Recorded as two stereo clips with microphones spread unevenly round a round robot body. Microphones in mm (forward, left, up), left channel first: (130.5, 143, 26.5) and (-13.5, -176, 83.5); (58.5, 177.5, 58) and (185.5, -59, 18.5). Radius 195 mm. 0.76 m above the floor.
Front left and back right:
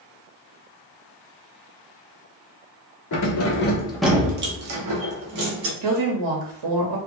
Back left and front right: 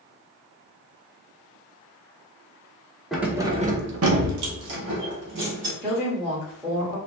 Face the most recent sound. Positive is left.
turn(degrees=-140)